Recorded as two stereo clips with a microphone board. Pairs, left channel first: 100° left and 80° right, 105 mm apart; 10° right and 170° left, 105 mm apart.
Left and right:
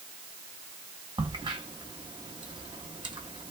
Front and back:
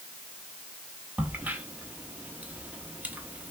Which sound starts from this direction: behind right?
A crack, at 1.2 s.